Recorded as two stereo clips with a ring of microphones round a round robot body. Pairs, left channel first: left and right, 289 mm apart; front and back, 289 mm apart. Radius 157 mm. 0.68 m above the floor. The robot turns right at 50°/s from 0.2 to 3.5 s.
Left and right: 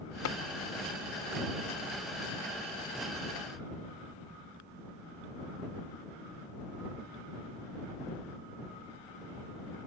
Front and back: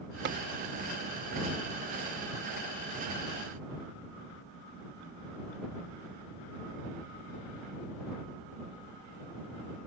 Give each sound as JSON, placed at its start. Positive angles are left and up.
{"t": 0.2, "sound": "tapping", "azimuth_deg": 125}